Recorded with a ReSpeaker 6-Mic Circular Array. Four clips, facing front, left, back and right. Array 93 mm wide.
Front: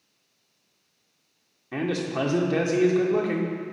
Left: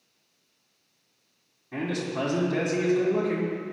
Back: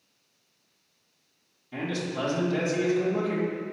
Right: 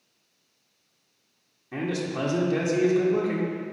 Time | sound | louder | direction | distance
1.7 | a man speaking | right 1 dB, front 4 dB | 10° right | 1.3 m